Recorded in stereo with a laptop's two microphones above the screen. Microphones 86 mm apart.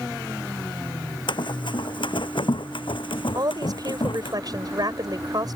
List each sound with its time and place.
1.3 s running footsteps: 65° left (ahead or behind); by 4.3 s 75° left (ahead or behind)
3.4 s a woman speaking: 50° right (ahead or behind)